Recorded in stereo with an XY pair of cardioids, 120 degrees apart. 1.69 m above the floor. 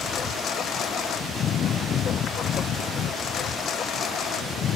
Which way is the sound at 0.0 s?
55° left.